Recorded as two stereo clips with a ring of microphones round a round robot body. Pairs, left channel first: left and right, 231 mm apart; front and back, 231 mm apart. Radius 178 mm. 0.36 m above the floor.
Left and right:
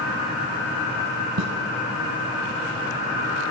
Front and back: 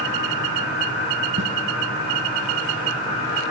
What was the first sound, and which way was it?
A snare drum, 125° right.